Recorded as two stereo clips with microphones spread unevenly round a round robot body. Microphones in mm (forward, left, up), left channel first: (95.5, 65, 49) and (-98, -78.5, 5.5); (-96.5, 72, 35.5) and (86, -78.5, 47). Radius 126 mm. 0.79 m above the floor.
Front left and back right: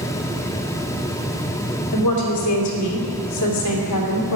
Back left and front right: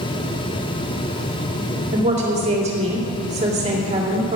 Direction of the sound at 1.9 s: 25° left.